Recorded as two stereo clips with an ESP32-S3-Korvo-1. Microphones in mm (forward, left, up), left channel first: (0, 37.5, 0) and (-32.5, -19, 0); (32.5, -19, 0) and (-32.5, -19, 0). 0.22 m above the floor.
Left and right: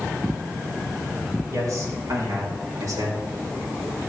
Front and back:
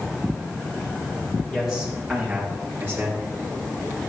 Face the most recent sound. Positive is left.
turn(degrees=-130)